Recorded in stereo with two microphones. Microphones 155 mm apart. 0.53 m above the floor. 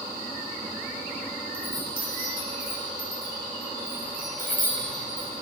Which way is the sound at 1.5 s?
70° right (ahead or behind).